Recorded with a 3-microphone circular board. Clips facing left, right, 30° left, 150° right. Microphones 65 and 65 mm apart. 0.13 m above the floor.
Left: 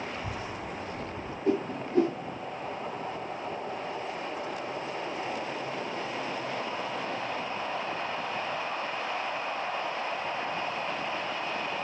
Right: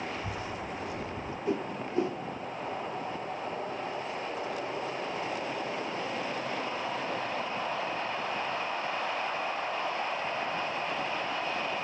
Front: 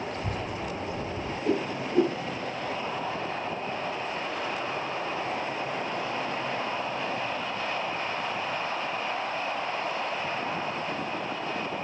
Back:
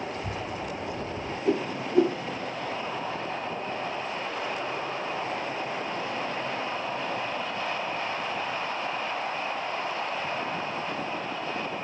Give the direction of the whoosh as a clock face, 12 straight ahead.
8 o'clock.